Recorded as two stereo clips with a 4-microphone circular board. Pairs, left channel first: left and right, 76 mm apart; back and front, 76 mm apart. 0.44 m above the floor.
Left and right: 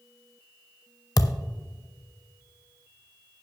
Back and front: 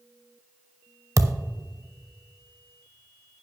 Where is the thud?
50° left, 0.6 m.